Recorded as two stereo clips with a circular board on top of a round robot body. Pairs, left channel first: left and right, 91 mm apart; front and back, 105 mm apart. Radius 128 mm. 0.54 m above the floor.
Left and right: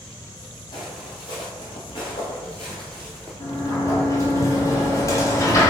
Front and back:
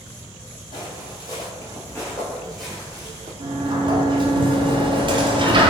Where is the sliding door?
145° left, 0.9 m.